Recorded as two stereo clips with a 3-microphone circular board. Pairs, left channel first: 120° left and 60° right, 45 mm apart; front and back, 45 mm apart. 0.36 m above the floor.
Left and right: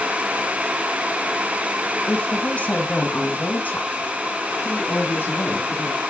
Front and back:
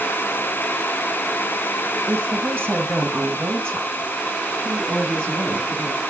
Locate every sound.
2.1 s a woman speaking: straight behind, 1.8 m; by 6.0 s 150° left, 4 m